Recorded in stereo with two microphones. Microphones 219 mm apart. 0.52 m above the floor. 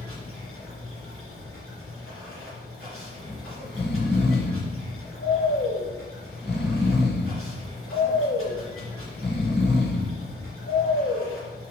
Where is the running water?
80° left, 3 m.